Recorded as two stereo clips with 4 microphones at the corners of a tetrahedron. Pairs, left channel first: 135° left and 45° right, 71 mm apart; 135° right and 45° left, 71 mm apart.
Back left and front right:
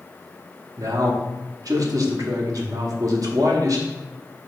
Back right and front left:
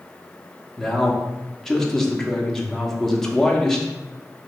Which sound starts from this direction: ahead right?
A man speaking, at 0.8 s.